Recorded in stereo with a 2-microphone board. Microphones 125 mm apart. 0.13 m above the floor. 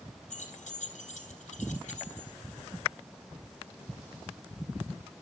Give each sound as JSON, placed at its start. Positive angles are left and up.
{"t": 0.3, "sound": "keys jangling", "side_deg": 65, "distance_m": 3.5}